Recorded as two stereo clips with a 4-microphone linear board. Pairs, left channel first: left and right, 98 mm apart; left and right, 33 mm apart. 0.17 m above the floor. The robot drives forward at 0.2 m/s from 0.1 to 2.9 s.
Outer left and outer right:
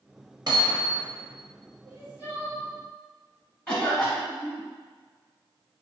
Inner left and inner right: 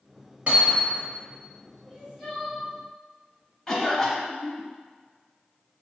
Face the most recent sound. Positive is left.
turn(degrees=10)  # may be behind; listen again after turning